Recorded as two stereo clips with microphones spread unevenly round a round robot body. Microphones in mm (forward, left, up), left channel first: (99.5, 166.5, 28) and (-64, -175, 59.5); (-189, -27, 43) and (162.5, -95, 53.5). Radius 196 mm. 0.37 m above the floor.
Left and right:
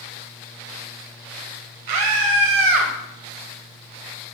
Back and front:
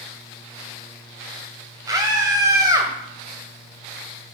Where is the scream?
90° right, 2 m.